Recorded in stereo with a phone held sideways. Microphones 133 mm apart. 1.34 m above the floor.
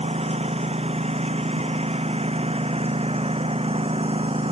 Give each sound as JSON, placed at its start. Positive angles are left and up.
{"t": 0.0, "sound": "a lawn mower", "side_deg": -50}